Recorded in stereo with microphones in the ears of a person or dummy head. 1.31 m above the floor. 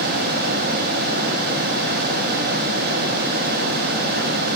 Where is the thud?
No thud in this recording.